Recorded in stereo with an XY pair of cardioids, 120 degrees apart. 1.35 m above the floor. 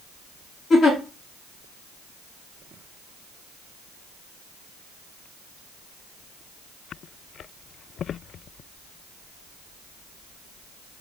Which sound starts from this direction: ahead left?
A giggle, at 0.7 s.